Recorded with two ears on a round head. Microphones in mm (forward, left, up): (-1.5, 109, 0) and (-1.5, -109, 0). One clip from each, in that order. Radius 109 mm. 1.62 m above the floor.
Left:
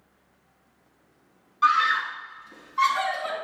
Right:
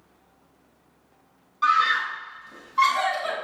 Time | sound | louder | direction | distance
1.6 | a scream | even | 10° left (ahead or behind) | 4 m